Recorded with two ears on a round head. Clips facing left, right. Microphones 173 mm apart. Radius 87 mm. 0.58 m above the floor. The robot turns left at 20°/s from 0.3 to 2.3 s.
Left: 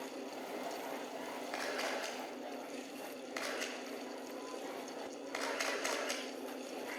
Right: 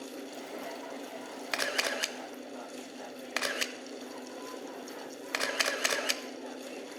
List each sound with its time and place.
1.5 s a camera shutter: 85° right, 1.0 m; by 6.2 s 80° right, 1.0 m